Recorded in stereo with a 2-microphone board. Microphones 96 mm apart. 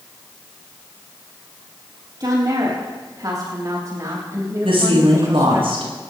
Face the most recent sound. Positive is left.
turn(degrees=-75)  # may be behind; listen again after turning